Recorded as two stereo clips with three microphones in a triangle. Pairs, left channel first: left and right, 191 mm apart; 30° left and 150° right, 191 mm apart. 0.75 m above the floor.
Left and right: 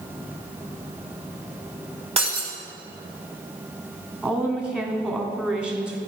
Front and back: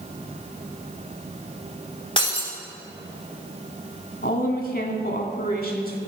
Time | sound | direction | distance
2.2 | breaking glass | 35° right | 2 m
4.2 | a woman speaking | 5° right | 1.5 m